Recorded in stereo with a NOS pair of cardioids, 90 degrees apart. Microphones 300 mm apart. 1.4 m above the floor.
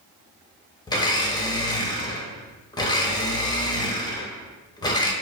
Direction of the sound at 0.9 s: 15° left.